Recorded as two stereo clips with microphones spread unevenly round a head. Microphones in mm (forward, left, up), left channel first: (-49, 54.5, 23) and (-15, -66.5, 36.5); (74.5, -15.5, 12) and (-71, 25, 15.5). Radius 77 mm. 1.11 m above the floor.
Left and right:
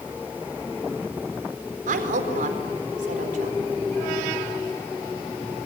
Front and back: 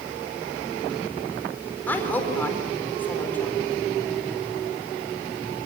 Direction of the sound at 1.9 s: 95° right.